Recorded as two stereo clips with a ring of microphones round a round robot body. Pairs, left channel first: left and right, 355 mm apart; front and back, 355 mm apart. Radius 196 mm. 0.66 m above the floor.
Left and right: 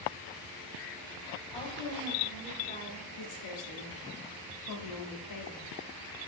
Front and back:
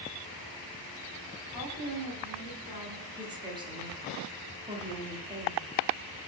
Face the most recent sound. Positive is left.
turn(degrees=105)